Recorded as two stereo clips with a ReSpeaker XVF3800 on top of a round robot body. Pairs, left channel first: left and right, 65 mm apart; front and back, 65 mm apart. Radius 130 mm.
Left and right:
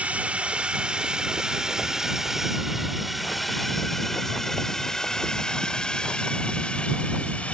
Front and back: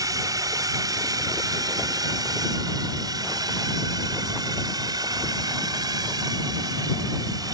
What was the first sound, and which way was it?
A drone, 160° right.